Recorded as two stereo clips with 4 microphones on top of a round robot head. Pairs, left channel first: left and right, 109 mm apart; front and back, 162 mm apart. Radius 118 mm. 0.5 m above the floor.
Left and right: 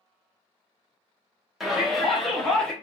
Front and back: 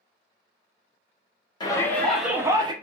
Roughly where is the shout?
Ahead.